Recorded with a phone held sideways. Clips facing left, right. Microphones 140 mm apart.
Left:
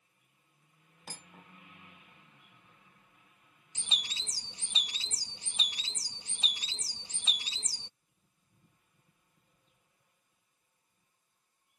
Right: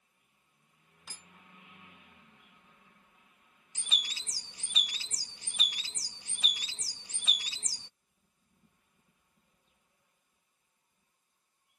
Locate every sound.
1.1 s cutlery clinking: 55° left (ahead or behind)
3.8 s a bird: 25° left (ahead or behind)